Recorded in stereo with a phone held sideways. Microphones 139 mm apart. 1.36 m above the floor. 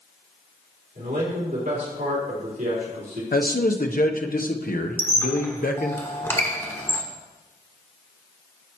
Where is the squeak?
15° left (ahead or behind), 1.1 m.